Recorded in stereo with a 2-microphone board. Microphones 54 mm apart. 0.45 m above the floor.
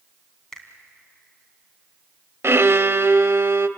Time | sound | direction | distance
0.5 | a finger snap | 10° left (ahead or behind) | 3 m
2.4 | a violin | 55° right (ahead or behind) | 0.7 m